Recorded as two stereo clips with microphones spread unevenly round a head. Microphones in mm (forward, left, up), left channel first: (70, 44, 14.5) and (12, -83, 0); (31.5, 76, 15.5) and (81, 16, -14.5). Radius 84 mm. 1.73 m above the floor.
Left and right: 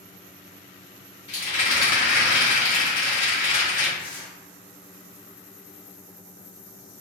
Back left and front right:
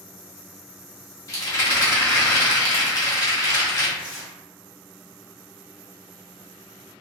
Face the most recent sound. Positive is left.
turn(degrees=120)